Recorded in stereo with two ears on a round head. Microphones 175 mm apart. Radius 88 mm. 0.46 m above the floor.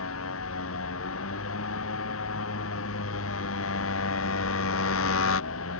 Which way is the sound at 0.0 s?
80° left.